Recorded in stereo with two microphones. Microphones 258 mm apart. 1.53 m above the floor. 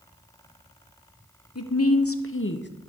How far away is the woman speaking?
About 1.2 m.